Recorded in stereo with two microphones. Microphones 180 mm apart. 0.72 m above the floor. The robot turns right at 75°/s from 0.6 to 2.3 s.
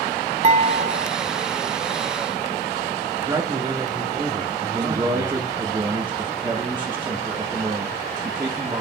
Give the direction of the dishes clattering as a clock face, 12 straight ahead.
5 o'clock.